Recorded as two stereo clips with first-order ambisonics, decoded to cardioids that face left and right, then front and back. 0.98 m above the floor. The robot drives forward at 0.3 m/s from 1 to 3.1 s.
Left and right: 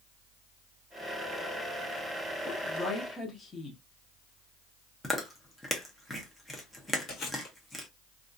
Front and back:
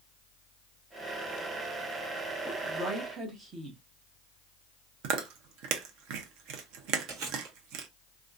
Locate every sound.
2.5 s a woman speaking: 115° left, 0.7 m; by 3.8 s 145° left, 0.7 m
5.0 s chewing: 175° left, 0.6 m
7.1 s chewing: 145° left, 1.1 m